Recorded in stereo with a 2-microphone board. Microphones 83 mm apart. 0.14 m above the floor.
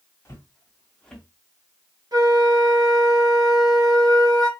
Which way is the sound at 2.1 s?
50° right (ahead or behind).